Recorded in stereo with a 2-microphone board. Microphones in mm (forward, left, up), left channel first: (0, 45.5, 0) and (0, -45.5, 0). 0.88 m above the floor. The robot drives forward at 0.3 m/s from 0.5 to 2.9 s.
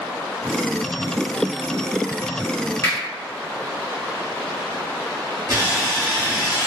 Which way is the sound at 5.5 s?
50° right (ahead or behind).